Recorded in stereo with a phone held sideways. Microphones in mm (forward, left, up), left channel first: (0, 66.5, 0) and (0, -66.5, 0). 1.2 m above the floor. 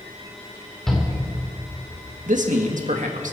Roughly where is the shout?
Centre.